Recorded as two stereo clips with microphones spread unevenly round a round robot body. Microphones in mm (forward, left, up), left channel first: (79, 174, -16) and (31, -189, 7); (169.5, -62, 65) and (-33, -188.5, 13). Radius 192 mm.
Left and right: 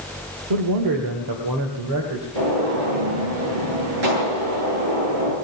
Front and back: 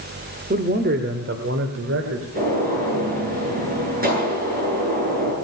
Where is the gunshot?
95° right, 9 m.